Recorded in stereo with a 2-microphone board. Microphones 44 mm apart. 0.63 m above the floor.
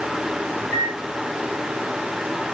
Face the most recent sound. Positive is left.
turn(degrees=80)